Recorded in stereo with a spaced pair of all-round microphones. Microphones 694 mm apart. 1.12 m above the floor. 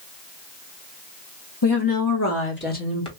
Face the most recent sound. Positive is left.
turn(degrees=5)  # may be behind; listen again after turning